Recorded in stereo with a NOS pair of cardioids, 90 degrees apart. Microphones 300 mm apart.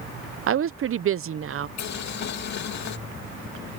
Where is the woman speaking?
45° right.